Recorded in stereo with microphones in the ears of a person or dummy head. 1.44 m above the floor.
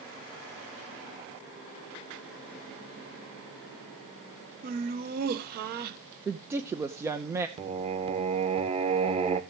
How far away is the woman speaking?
About 0.8 m.